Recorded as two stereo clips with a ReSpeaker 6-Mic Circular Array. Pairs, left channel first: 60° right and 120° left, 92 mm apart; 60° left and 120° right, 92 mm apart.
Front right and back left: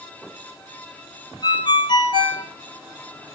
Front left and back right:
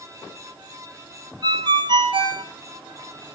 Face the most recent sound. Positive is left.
turn(degrees=-90)